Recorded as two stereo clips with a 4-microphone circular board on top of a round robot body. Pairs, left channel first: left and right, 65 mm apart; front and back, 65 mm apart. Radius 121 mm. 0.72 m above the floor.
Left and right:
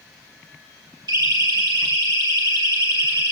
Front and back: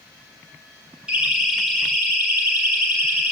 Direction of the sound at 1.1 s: 100° right.